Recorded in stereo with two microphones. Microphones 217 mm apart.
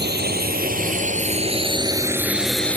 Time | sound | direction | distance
0.0 | a drone | 50° right (ahead or behind) | ?